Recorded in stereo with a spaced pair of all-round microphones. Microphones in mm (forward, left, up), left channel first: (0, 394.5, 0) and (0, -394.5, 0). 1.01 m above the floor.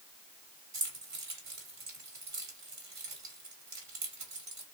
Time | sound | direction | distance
0.7 | keys jangling | 80° right | 1.8 m